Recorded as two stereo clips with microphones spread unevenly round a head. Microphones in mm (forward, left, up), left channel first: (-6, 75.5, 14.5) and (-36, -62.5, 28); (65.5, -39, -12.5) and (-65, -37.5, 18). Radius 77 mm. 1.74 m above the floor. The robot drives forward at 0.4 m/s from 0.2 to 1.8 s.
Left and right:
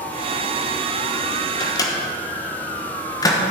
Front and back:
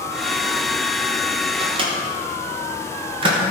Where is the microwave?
140° left, 1.1 m; by 3.4 s 145° left, 1.2 m.